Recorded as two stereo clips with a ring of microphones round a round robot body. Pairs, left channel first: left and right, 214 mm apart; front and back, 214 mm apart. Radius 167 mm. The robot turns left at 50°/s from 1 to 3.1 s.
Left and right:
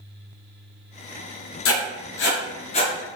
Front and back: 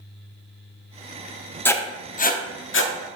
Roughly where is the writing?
Left.